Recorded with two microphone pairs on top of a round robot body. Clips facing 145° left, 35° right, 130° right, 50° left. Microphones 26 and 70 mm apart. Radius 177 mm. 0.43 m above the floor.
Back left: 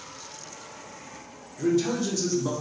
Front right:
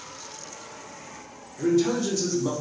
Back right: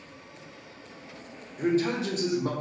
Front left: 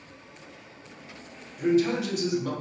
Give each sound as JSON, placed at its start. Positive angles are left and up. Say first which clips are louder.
{"t": 1.6, "sound": "a man speaking", "louder": "front right 2 dB, front left 2 dB", "azimuth_deg": -105, "distance_m": 1.3}